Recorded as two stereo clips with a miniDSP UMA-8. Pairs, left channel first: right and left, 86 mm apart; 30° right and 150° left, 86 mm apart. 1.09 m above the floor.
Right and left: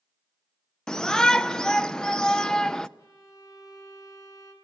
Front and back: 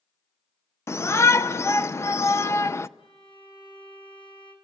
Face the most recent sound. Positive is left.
turn(degrees=-45)